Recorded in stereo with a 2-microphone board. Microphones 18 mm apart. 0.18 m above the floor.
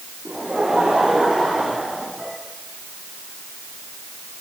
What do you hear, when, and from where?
0.2 s laughter: 50° right (ahead or behind), 8 m; by 2.4 s 55° right (ahead or behind), 7 m